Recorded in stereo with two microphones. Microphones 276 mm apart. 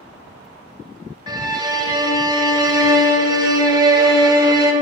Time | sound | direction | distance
1.3 | a violin | 15° right (ahead or behind) | 0.7 m